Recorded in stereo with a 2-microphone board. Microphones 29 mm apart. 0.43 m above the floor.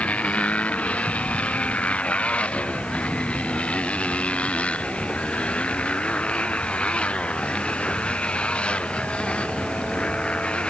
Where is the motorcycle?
55° left (ahead or behind); by 10.7 s 45° left (ahead or behind).